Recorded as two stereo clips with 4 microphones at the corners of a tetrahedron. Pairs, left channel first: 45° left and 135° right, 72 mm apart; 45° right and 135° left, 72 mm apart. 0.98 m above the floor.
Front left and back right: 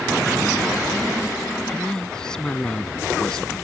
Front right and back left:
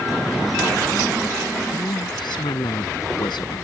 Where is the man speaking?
35° right.